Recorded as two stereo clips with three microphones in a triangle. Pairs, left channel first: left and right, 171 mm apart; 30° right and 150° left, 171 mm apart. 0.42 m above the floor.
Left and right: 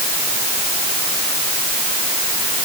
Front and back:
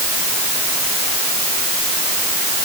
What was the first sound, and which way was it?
Only background noise.